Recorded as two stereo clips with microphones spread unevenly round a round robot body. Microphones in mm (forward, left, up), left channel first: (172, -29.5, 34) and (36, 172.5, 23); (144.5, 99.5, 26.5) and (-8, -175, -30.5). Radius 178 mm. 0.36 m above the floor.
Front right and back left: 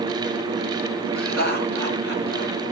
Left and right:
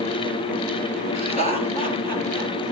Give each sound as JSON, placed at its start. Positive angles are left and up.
{"t": 1.1, "sound": "laughter", "azimuth_deg": 170, "distance_m": 6.0}